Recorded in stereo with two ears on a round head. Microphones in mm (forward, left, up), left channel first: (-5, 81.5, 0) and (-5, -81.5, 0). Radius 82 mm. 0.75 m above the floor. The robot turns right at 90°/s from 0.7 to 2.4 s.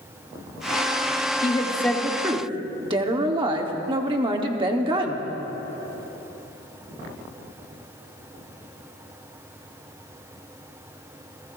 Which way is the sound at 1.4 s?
130° left.